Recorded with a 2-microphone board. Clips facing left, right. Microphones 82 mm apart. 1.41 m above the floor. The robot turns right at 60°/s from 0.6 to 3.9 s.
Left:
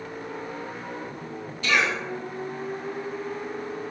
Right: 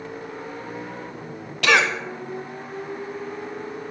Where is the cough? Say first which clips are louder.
Right 5 dB; 70° right (ahead or behind), 0.8 m; by 1.9 s 85° right, 0.8 m.